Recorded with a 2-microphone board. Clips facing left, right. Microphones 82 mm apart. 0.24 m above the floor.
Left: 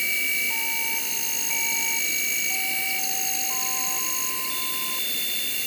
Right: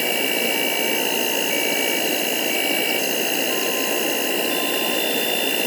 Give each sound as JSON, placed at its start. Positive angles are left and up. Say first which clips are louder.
{"t": 0.0, "sound": "an insect", "louder": "right 8 dB", "side_deg": -65}